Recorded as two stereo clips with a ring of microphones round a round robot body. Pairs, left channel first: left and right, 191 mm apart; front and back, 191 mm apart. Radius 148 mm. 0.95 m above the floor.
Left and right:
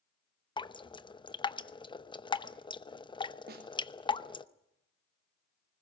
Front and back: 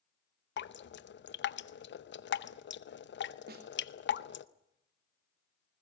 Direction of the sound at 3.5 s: 135° right.